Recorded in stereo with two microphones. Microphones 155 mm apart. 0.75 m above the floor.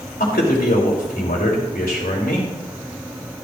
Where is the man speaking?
75° left (ahead or behind), 3.5 m.